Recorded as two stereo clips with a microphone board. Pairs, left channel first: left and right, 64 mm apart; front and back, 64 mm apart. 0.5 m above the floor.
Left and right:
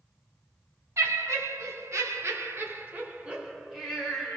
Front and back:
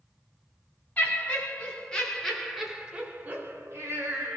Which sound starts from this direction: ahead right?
Laughter, at 1.0 s.